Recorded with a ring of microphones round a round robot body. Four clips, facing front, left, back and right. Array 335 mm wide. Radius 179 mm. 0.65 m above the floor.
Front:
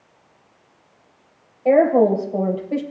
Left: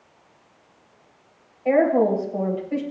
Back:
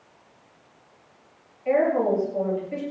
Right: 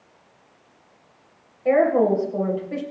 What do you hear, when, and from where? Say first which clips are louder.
1.6 s a woman speaking: right 1 dB, front 7 dB; 20° right, 3 m